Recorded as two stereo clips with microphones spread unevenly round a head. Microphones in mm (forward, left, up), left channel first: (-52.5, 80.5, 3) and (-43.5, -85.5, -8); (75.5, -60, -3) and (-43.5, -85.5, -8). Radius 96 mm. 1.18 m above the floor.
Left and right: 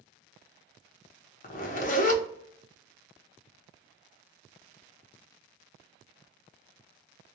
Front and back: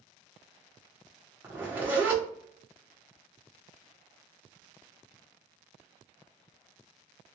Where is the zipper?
115° left, 0.6 m.